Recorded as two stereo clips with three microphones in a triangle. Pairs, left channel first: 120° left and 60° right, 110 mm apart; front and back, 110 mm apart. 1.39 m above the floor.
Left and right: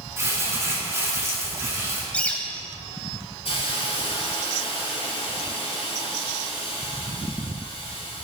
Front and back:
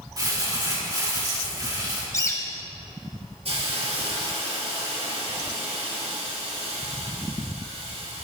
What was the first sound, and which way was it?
Crumpling, 125° right.